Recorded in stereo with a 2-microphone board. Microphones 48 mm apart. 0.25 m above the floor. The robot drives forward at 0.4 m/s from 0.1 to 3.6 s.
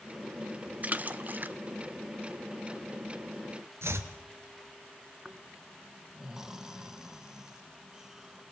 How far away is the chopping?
About 2 m.